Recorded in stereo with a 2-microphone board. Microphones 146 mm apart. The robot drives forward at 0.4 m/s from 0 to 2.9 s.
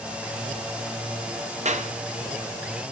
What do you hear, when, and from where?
1.6 s a clap: 55° right (ahead or behind), 0.8 m; by 1.9 s 60° right (ahead or behind), 0.7 m